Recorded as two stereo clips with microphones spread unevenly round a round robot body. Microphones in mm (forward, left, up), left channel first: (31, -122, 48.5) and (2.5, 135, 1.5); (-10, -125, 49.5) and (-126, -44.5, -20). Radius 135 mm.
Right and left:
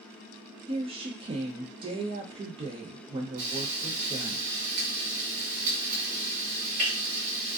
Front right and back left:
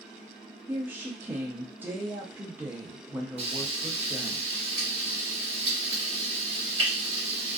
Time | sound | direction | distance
0.7 | a woman speaking | 135° left | 0.6 m
3.4 | frying | 145° left | 1.6 m